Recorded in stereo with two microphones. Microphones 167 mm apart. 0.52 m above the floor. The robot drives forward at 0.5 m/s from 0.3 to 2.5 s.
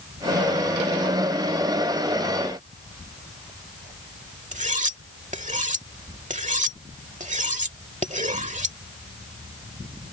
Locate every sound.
4.5 s cutlery clinking: 50° right (ahead or behind)